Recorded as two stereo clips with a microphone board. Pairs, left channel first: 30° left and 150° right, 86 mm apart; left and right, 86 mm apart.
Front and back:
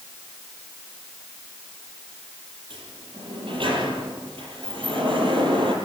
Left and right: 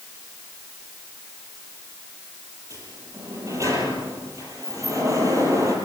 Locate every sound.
2.7 s a sliding door: 140° right, 6.5 m